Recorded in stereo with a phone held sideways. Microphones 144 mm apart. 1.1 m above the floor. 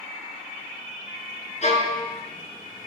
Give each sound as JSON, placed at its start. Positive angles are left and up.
{"t": 1.6, "sound": "a violin", "side_deg": 50, "distance_m": 2.5}